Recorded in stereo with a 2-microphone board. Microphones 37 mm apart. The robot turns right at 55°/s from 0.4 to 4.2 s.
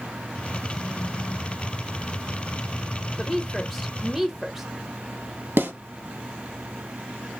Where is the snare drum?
85° right, 2.5 m.